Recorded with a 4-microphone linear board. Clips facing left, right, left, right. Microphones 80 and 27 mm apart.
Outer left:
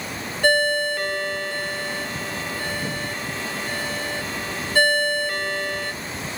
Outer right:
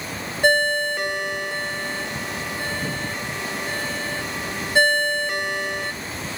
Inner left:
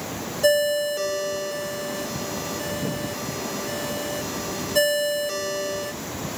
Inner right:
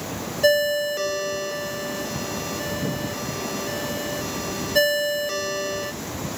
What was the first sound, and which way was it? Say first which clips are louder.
A ringtone: even, inner right 1 dB; 20° right (ahead or behind).